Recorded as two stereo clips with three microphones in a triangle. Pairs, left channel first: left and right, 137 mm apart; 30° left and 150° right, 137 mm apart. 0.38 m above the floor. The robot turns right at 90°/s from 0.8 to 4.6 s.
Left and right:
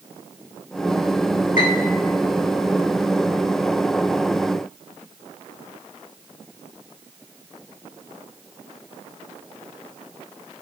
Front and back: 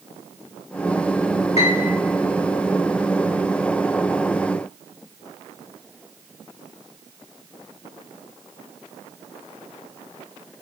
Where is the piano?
70° left, 3.5 m; by 2.0 s 105° left, 3.5 m.